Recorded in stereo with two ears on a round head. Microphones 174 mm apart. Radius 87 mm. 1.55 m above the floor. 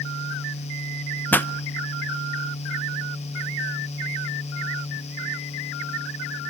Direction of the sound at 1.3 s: 10° left (ahead or behind).